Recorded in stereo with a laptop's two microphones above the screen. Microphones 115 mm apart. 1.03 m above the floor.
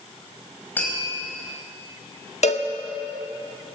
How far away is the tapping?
About 5.5 m.